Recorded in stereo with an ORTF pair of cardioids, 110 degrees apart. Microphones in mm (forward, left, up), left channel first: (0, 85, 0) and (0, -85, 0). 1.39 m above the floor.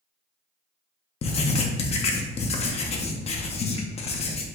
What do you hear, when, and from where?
1.2 s writing: 40° left, 0.7 m